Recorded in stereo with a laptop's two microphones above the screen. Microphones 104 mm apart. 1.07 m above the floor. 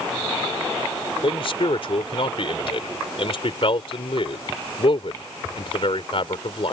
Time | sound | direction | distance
1.2 | a man speaking | 65° left (ahead or behind) | ?